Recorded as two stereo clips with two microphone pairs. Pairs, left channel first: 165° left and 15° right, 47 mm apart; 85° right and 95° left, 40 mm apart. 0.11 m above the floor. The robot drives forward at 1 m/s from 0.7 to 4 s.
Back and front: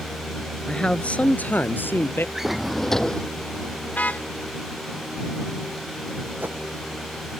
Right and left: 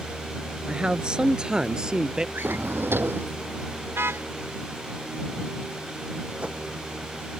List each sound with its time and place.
0.7 s a man speaking: 120° left; by 2.2 s 165° left
2.4 s a drawer: 65° left; by 3.3 s 95° left
3.9 s a car horn: 110° left
6.4 s a whoosh: 30° left